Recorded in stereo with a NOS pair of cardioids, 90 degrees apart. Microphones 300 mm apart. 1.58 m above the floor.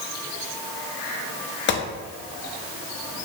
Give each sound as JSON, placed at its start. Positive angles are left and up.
{"t": 1.7, "sound": "a gunshot", "azimuth_deg": 40, "distance_m": 0.6}